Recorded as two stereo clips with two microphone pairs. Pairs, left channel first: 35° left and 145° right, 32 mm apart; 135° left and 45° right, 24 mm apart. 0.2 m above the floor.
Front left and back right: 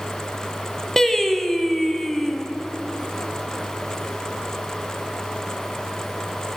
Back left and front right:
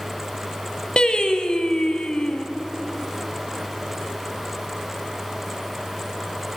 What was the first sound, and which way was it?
Singing, 105° left.